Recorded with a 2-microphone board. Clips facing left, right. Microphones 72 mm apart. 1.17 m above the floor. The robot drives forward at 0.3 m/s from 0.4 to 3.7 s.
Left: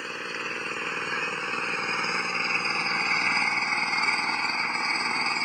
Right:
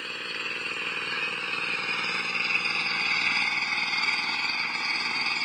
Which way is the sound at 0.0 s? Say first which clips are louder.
Left 2 dB; 15° left (ahead or behind).